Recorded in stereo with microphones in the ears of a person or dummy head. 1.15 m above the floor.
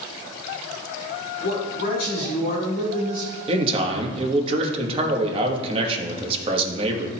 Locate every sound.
1.4 s a man speaking: 55° left (ahead or behind), 3 m; by 3.3 s 35° left (ahead or behind), 3.5 m
3.5 s a man speaking: 35° right (ahead or behind), 1.3 m